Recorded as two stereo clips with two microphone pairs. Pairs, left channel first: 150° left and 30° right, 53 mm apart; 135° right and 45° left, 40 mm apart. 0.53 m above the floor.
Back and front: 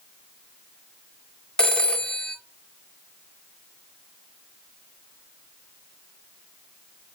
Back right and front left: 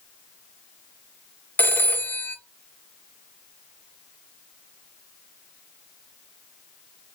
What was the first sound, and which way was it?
A phone ringing, 140° right.